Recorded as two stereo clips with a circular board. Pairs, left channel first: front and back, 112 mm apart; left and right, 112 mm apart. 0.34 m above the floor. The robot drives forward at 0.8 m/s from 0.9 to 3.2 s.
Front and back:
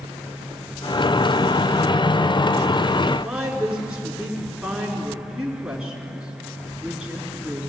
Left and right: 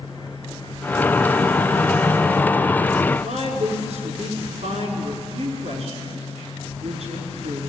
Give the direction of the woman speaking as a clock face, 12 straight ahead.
3 o'clock.